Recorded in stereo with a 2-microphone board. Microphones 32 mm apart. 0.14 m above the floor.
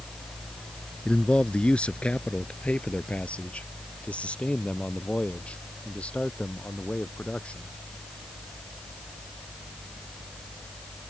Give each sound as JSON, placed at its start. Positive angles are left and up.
{"t": 1.1, "sound": "a man speaking", "side_deg": 35}